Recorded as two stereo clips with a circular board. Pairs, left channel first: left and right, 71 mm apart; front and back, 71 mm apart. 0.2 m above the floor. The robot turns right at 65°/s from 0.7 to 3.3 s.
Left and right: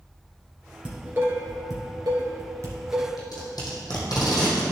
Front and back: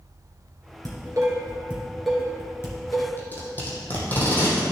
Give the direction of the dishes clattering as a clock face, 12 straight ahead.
6 o'clock.